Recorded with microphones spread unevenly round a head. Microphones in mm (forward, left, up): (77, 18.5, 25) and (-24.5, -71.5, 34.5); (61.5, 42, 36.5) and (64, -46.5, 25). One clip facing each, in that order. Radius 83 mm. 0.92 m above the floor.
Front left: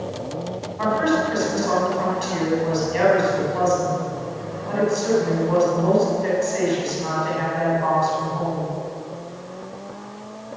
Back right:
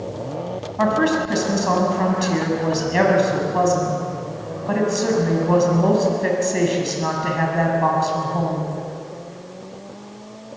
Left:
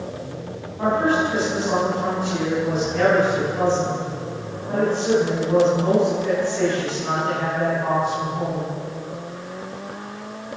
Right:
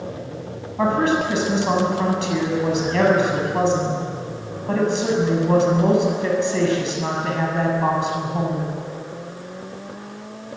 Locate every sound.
0.8 s a woman speaking: 110° right, 7 m